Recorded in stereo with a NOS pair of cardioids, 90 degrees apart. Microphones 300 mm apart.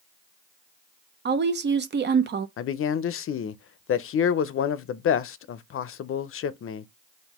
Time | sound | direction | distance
1.2 | a woman speaking | 40° right | 0.7 m
2.6 | a man speaking | 50° left | 0.6 m